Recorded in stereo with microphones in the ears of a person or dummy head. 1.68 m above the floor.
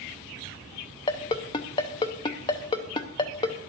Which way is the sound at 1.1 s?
25° left (ahead or behind).